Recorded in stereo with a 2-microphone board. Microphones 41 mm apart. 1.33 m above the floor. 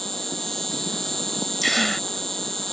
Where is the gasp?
5° left (ahead or behind).